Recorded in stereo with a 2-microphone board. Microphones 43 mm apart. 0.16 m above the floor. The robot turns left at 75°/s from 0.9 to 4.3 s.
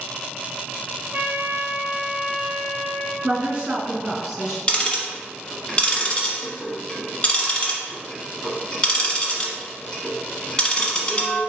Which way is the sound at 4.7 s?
20° left (ahead or behind).